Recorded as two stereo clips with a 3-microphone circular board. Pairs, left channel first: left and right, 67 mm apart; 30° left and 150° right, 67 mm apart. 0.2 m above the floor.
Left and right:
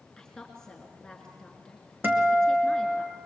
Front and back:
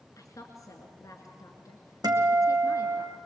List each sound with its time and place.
0.2 s a woman speaking: 10° left, 2.5 m
2.0 s a guitar: 150° right, 2 m